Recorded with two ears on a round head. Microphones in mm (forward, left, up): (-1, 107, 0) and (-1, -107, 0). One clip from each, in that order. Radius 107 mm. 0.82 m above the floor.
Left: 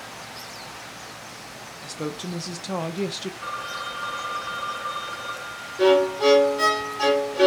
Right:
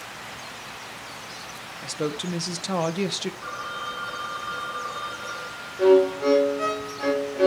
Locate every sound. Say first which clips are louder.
1.8 s a woman speaking: right 4 dB; 15° right (ahead or behind), 1.1 m
3.4 s a phone ringing: left 1 dB; 35° left (ahead or behind), 4 m
5.8 s a violin: even; 85° left, 1.7 m